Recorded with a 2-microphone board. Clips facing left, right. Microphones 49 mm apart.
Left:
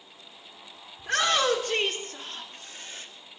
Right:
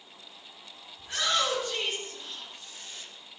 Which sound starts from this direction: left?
A shout, at 1.0 s.